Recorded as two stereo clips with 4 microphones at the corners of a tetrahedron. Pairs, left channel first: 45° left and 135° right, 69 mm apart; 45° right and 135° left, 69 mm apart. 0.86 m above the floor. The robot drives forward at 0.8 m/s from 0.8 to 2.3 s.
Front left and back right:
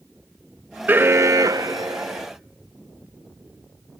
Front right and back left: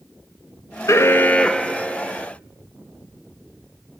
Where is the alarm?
75° right, 0.7 m; by 2.3 s 150° right, 1.2 m.